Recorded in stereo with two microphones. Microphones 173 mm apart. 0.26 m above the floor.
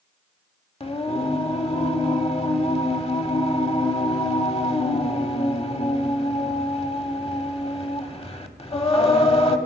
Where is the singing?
35° left (ahead or behind), 0.9 m.